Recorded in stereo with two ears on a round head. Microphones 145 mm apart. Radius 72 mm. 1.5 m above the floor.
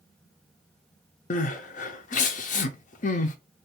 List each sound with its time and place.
1.3 s crying: 50° left (ahead or behind), 0.6 m